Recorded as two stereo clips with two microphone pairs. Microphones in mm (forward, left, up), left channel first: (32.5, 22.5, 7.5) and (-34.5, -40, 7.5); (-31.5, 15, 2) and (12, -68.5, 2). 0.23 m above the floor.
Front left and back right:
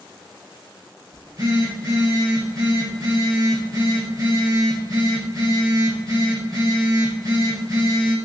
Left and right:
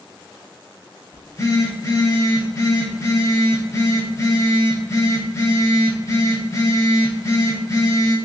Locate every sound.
1.1 s a phone buzzing: 175° left, 0.7 m